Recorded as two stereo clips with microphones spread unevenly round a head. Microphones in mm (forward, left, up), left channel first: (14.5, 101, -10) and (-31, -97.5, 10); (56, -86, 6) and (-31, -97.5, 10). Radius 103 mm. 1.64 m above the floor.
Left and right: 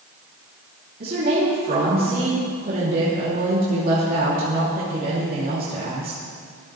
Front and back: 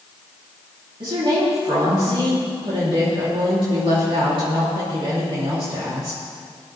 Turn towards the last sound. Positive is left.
turn(degrees=-150)